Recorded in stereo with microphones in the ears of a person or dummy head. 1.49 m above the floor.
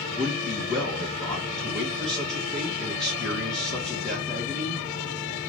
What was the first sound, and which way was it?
A man speaking, centre (ahead or behind).